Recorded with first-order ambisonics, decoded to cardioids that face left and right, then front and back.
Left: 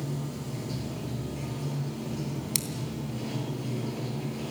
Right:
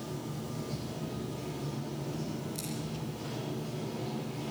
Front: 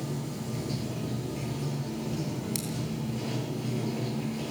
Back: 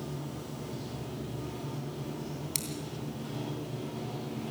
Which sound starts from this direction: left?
Scissors, at 2.5 s.